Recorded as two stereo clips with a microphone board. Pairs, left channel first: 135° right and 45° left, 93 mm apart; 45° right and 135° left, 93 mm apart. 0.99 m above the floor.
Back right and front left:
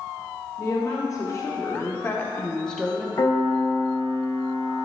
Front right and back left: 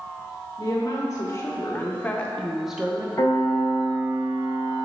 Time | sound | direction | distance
0.6 | a woman speaking | 90° right | 1.3 m
3.2 | a piano | 105° right | 2 m